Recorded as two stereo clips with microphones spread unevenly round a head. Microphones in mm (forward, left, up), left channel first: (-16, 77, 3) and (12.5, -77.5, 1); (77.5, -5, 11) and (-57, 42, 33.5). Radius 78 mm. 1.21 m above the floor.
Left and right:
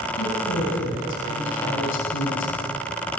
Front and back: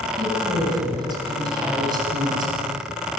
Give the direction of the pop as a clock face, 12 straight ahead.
I don't hear a pop.